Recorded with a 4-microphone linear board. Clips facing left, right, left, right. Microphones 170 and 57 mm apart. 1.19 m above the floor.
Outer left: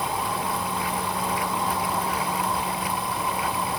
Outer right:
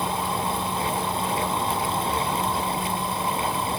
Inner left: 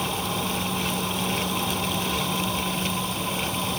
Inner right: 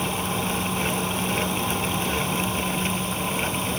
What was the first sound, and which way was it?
Only background noise.